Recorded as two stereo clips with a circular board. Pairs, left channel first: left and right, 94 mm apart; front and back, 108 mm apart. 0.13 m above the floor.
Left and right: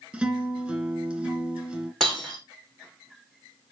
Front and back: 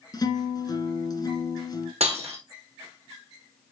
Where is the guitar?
10° right, 1.9 m.